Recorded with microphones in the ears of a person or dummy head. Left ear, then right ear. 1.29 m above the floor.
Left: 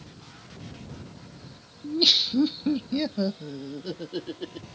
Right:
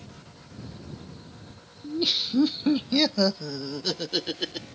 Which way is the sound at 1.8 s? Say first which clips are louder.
Left 5 dB; 35° left (ahead or behind).